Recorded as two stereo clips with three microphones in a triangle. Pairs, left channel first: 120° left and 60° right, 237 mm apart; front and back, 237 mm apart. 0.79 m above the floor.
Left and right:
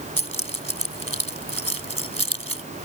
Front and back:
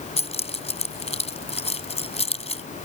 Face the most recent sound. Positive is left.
turn(degrees=-65)